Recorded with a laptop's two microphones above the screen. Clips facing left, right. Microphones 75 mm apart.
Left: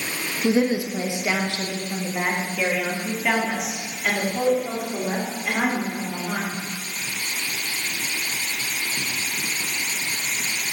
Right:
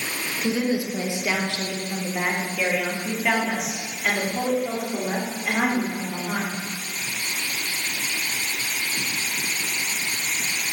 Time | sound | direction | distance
0.4 | a woman speaking | 30° left (ahead or behind) | 1.1 m